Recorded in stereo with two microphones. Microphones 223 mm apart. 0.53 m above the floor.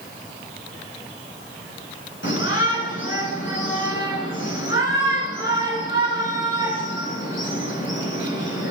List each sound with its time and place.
2.2 s a shout: 60° left (ahead or behind), 6.5 m